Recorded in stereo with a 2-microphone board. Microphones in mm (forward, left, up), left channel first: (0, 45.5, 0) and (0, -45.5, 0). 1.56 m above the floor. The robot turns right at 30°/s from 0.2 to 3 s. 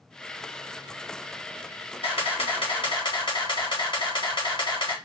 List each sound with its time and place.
2.0 s a camera shutter: 80° left, 1.7 m; by 5.0 s 60° left (ahead or behind), 1.7 m